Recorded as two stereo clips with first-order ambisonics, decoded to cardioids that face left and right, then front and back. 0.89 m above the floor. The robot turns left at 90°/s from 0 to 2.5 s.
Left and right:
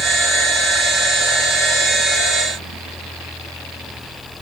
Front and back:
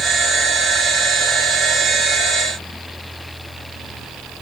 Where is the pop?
I don't hear a pop.